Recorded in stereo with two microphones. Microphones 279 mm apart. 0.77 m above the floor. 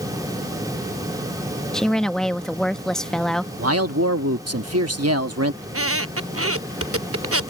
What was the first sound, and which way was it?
A woman speaking, centre (ahead or behind).